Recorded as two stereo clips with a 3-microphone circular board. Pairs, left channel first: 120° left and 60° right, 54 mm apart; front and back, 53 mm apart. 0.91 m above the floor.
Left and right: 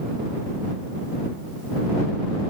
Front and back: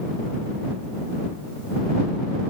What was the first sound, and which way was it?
Only background noise.